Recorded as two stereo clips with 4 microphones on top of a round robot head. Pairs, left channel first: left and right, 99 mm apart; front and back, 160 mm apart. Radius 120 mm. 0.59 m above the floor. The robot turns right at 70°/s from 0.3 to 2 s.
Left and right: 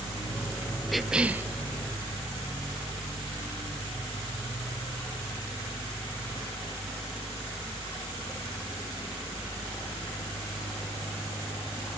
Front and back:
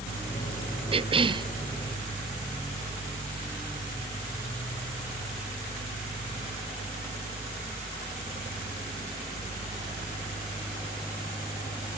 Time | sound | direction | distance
0.9 | a cough | straight behind | 0.9 m